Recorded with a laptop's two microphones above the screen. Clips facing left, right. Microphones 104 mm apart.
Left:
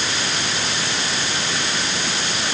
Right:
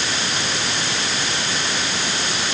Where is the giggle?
No giggle in this recording.